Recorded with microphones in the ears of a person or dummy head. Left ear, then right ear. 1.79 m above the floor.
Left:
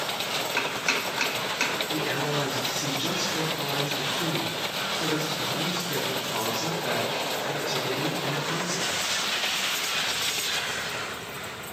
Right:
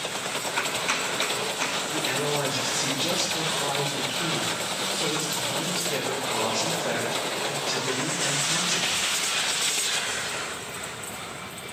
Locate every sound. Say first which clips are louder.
0.6 s chopping: right 1 dB; 40° left (ahead or behind), 5.5 m
1.9 s a man speaking: right 1 dB; 20° left (ahead or behind), 4.5 m